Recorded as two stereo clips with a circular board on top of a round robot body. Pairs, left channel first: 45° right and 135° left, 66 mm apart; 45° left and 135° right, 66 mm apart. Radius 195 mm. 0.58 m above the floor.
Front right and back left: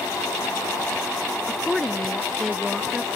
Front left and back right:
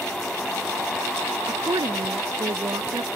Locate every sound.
1.5 s a woman speaking: 130° right; by 3.1 s 135° right